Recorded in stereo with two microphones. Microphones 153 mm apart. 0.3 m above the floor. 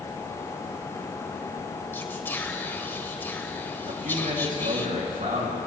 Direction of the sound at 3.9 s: 70° right (ahead or behind).